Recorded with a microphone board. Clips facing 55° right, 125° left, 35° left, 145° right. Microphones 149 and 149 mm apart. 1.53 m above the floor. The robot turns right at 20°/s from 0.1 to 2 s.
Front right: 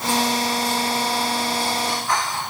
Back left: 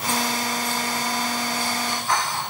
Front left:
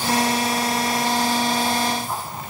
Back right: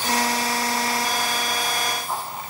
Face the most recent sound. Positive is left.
No sound to turn to.